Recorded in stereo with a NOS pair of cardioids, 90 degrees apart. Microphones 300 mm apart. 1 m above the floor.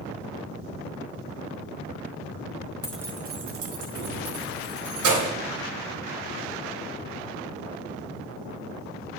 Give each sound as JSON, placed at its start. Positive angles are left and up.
{"t": 2.8, "sound": "keys jangling", "azimuth_deg": 15, "distance_m": 0.8}